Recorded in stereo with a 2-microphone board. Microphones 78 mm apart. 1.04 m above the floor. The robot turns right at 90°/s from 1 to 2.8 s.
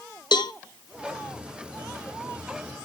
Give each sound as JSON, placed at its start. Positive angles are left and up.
{"t": 0.3, "sound": "a cowbell", "side_deg": 70, "distance_m": 0.6}